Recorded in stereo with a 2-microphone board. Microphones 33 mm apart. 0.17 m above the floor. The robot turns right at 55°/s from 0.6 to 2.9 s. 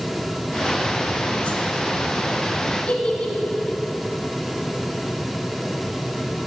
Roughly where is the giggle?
Left.